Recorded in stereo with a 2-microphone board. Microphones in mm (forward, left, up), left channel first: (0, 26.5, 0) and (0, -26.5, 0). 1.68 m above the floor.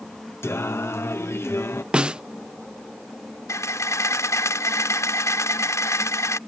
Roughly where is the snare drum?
Centre.